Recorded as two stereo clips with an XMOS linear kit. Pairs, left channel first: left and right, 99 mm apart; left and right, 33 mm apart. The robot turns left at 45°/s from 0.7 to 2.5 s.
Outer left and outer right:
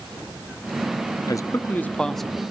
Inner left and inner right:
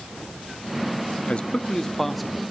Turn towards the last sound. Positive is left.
turn(degrees=-10)